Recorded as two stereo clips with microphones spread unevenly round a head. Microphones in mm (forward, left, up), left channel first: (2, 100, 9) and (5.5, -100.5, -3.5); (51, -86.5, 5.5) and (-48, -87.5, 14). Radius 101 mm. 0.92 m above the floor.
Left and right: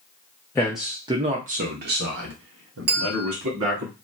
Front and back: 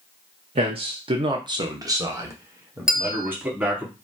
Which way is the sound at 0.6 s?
170° left.